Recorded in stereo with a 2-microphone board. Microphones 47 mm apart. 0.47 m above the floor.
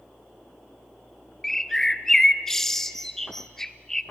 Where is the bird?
10° left (ahead or behind), 0.5 m.